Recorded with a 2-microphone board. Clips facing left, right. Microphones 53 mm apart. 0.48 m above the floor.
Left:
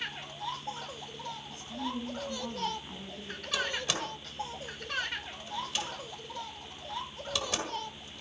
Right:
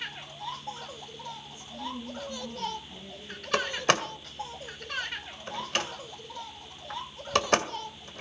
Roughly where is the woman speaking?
Left.